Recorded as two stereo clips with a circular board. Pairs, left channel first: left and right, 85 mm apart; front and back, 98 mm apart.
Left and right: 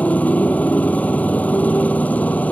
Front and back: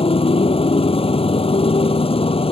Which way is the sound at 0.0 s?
15° left.